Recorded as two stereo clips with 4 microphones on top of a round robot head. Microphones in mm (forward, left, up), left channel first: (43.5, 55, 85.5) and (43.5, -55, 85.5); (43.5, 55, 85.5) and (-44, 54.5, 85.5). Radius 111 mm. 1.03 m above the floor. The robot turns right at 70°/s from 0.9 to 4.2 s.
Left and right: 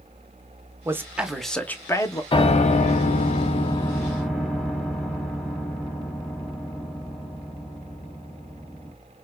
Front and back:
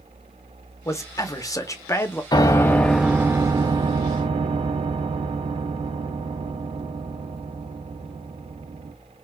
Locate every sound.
0.8 s a man speaking: 35° right, 0.9 m; by 2.2 s 60° left, 0.9 m
2.3 s a piano: 45° left, 0.6 m; by 8.9 s 175° left, 0.6 m